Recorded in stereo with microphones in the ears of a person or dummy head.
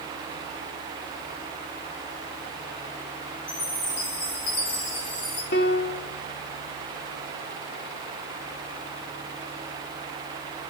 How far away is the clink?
No clink in this recording.